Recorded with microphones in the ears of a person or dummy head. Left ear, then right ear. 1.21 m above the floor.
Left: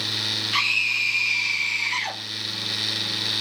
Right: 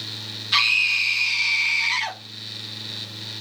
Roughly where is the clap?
No clap in this recording.